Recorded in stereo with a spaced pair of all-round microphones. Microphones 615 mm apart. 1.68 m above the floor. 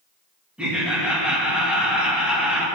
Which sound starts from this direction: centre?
Laughter, at 0.6 s.